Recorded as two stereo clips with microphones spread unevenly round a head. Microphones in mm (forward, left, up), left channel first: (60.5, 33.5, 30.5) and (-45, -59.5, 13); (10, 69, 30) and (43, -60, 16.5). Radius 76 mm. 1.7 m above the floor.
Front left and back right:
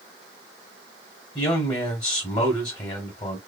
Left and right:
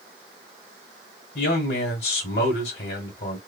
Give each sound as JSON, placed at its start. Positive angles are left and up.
{"t": 1.4, "sound": "a man speaking", "azimuth_deg": 100, "distance_m": 1.2}